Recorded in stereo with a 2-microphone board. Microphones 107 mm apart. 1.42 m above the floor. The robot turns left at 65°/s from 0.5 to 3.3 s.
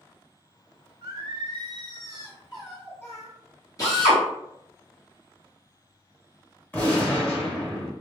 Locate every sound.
1.0 s singing: 75° right, 1.5 m; by 3.3 s 135° left, 1.5 m
3.8 s a drill: 30° left (ahead or behind), 1.2 m
6.7 s a gunshot: 20° left (ahead or behind), 1.2 m